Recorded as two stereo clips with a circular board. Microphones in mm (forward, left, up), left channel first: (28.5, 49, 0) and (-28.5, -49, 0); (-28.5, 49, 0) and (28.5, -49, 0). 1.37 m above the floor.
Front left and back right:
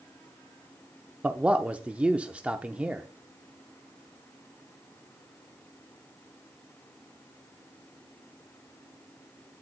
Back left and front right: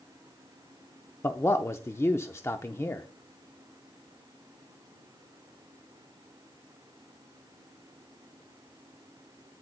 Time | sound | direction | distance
1.2 | a man speaking | 170° left | 0.5 m